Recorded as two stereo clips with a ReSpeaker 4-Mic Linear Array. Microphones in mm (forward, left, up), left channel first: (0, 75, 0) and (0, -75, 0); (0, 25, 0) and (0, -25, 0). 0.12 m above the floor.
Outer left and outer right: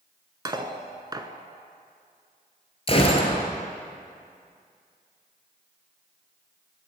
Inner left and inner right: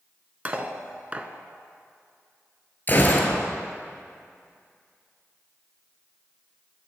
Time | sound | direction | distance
0.5 | cutlery clinking | 30° right (ahead or behind) | 0.7 m
2.9 | a gunshot | 40° left (ahead or behind) | 1.3 m